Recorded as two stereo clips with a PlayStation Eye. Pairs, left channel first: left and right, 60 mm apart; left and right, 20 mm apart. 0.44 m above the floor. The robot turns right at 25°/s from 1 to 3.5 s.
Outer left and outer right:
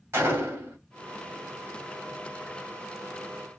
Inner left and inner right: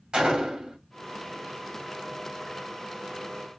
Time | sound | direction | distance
0.1 | a gunshot | 45° right (ahead or behind) | 2 m